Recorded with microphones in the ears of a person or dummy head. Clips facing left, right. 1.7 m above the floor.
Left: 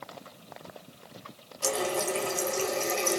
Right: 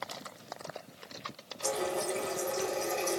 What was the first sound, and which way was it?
A running tap, 45° left (ahead or behind).